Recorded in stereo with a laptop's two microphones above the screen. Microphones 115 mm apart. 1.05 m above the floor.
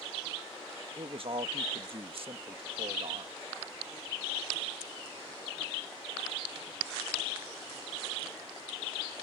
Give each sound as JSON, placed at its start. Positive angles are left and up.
{"t": 1.0, "sound": "a man speaking", "side_deg": -55}